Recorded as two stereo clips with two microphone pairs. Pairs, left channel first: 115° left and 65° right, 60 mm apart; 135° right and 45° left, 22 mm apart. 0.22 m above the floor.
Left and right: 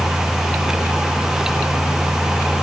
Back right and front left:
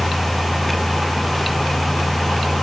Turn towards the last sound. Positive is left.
No sound to turn to.